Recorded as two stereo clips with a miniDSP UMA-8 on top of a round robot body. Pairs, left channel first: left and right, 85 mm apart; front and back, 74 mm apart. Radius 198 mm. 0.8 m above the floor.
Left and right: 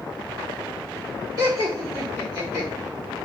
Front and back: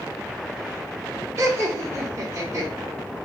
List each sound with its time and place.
1.4 s laughter: 125° right, 1.6 m